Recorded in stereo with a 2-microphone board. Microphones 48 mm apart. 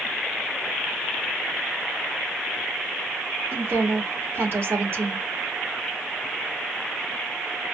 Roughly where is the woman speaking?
Right.